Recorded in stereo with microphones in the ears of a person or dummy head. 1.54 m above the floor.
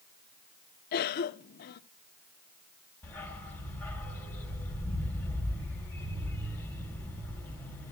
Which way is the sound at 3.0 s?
5° left (ahead or behind).